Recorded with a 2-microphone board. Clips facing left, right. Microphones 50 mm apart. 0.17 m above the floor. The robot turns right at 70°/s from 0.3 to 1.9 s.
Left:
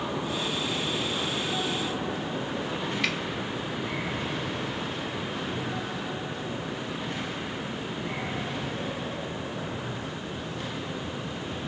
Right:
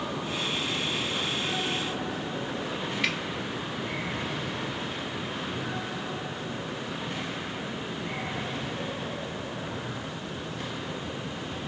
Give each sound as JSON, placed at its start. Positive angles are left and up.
{"t": 3.0, "sound": "a finger snap", "side_deg": -5, "distance_m": 0.8}